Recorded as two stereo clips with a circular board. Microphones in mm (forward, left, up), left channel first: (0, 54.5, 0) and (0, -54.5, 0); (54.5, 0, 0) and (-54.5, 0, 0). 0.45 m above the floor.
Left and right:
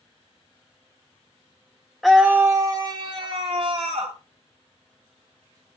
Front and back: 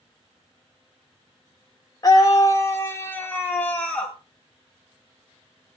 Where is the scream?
Straight ahead, 0.8 m; by 4.2 s 80° right, 1.8 m.